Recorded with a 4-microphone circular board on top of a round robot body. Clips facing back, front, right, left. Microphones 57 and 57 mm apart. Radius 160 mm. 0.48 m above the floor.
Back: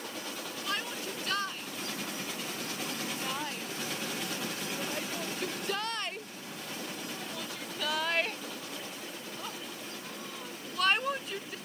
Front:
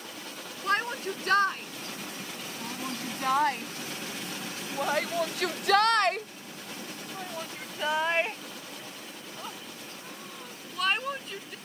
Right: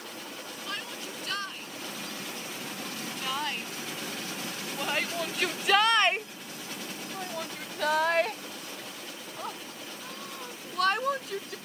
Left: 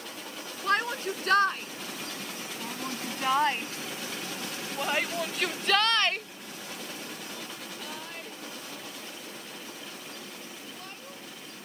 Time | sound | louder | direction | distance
0.6 | a shout | front 9 dB, left 12 dB | 50° left | ?